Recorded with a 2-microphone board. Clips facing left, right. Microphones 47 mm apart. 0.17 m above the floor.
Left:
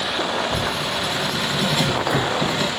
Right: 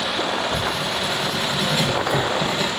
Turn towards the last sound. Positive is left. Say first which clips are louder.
# even
turn(degrees=10)  # may be behind; listen again after turning